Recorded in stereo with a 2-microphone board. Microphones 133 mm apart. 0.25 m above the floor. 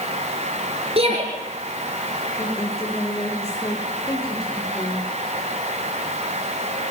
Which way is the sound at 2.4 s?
25° left (ahead or behind).